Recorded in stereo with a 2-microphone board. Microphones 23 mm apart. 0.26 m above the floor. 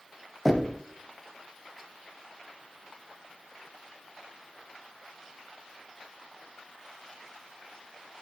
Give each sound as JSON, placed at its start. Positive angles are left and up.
{"t": 0.5, "sound": "knocking", "side_deg": -5, "distance_m": 1.0}